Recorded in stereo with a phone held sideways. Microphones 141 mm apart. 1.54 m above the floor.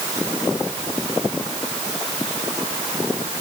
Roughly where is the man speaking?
I don't hear a man speaking.